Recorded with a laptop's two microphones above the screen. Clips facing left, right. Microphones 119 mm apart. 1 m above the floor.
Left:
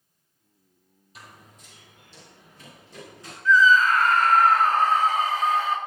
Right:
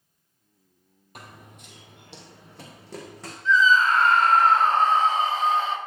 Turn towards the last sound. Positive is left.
turn(degrees=-25)  # may be behind; listen again after turning